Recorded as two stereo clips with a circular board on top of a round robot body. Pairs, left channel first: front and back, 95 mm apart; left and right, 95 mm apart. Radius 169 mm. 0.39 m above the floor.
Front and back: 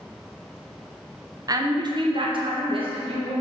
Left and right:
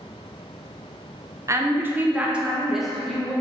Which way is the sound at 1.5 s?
140° right.